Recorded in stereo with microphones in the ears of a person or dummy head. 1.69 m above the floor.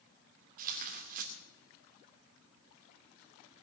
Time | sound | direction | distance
0.6 | tearing paper | 40° right (ahead or behind) | 2.5 m